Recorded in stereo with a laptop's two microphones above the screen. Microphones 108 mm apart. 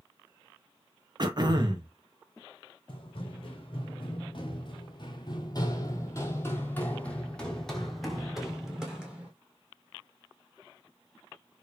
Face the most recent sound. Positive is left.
turn(degrees=-10)  # may be behind; listen again after turning